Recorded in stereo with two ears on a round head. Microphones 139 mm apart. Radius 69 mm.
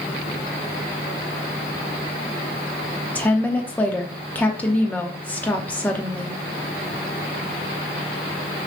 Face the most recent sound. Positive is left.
turn(degrees=10)  # may be behind; listen again after turning